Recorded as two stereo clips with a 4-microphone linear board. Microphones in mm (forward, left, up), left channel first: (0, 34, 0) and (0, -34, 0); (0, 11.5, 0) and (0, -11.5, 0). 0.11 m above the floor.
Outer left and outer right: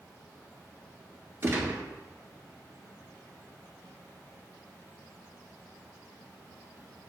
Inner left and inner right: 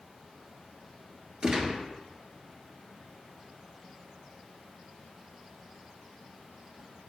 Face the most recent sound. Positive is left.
turn(degrees=-40)  # may be behind; listen again after turning